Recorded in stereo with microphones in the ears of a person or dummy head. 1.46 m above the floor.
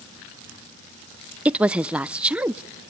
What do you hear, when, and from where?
1.4 s a woman speaking: 10° right (ahead or behind), 0.5 m